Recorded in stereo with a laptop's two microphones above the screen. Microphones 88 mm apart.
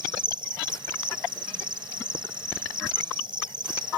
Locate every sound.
0.0 s an insect: 65° right (ahead or behind)